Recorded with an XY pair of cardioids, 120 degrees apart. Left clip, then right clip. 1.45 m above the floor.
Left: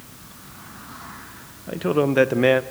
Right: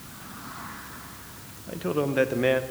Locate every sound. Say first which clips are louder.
1.7 s a man speaking: left 6 dB; 35° left, 0.9 m